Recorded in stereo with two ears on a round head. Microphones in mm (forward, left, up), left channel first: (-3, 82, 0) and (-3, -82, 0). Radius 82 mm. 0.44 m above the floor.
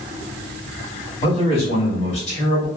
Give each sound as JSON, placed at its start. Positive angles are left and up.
{"t": 1.2, "sound": "a man speaking", "side_deg": 30, "distance_m": 2.0}